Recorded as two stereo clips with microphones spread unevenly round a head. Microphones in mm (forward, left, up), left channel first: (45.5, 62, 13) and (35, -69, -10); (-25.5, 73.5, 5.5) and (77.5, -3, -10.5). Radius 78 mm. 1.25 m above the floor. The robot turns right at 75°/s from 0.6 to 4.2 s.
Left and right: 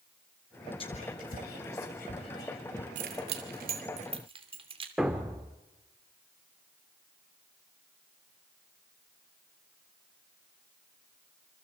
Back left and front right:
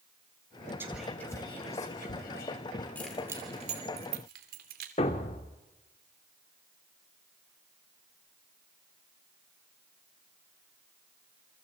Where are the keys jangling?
140° right, 3 m; by 4.9 s 45° right, 3 m.